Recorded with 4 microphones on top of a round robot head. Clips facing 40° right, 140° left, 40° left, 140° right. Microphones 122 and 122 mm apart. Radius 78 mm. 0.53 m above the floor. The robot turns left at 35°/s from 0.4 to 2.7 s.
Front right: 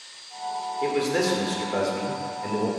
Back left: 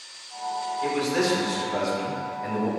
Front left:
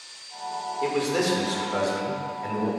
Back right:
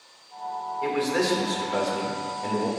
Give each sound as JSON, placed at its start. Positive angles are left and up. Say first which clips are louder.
{"t": 0.8, "sound": "a man speaking", "louder": "front right 1 dB, even", "azimuth_deg": -20, "distance_m": 1.8}